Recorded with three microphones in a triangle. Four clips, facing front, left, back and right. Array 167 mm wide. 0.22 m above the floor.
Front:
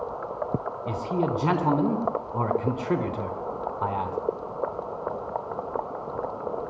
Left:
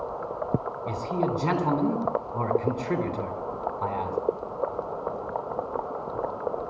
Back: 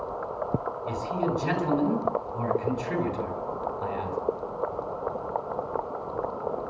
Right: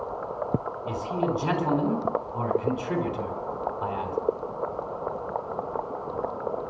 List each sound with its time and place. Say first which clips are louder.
0.9 s a man speaking: even, front 2 dB; 15° left, 2.5 m